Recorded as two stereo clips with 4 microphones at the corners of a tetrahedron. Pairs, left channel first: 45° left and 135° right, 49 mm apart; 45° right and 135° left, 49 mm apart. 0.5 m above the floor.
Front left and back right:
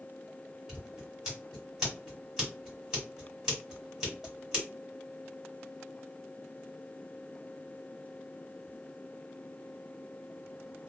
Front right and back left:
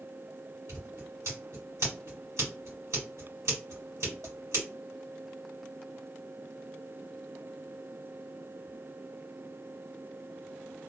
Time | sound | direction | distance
0.7 | scissors | 150° left | 1.9 m